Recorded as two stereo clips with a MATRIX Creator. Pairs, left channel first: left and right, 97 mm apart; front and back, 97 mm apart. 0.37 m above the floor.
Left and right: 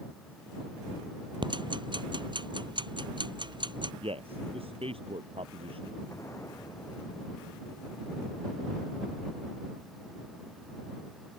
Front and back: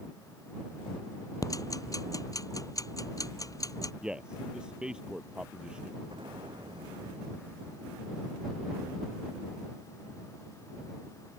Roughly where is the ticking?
Ahead right.